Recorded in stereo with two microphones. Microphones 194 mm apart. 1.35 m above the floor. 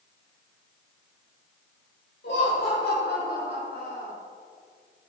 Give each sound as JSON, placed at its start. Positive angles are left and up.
{"t": 2.2, "sound": "laughter", "side_deg": 65, "distance_m": 5.5}